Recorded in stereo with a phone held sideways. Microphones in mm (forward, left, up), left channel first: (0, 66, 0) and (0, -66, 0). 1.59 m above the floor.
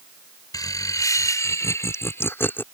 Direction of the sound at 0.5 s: 25° left (ahead or behind).